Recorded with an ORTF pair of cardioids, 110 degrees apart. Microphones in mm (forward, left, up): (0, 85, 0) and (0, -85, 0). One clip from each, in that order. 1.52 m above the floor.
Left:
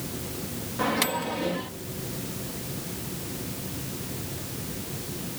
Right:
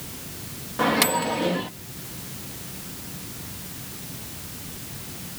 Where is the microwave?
30° right.